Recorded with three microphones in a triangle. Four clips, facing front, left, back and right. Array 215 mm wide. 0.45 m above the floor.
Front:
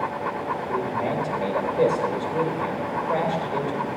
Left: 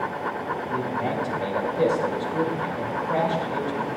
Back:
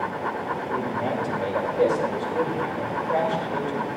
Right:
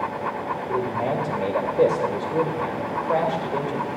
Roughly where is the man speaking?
Right.